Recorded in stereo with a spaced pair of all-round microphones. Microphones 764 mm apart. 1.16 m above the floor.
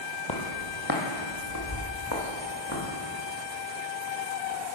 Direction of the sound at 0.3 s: 35° left (ahead or behind).